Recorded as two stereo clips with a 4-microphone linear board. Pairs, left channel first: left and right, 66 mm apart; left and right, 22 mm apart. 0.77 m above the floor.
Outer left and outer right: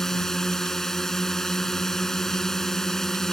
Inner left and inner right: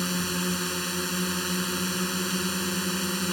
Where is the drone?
5° left (ahead or behind).